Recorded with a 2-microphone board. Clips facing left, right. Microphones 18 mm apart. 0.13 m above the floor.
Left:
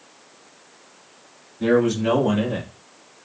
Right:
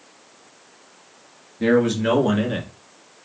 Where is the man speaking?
35° right (ahead or behind), 1.7 m; by 3.3 s 30° right (ahead or behind), 1.2 m.